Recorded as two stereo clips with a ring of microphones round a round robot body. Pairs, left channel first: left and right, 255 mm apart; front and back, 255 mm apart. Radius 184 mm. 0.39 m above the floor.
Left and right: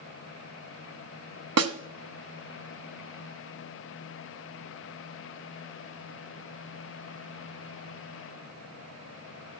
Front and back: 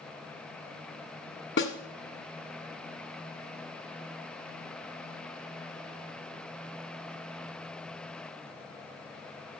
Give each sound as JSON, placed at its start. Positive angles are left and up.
{"t": 1.6, "sound": "a snare drum", "azimuth_deg": -65, "distance_m": 0.9}